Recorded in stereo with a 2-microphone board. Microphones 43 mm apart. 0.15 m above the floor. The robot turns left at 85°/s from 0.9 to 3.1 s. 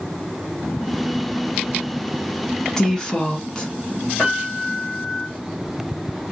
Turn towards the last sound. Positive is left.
turn(degrees=30)  # may be behind; listen again after turning